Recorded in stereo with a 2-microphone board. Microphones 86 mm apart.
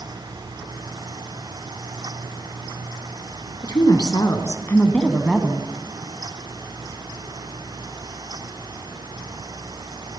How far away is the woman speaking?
About 3 m.